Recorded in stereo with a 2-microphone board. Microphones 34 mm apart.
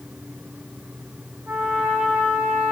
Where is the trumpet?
45° right (ahead or behind), 6 m.